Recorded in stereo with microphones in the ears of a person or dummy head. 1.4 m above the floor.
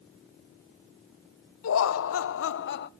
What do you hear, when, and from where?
1.6 s laughter: 70° left (ahead or behind), 1.2 m